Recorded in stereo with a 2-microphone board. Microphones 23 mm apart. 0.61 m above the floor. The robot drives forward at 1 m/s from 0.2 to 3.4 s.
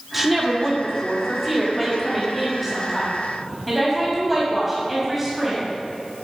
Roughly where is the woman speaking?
Centre.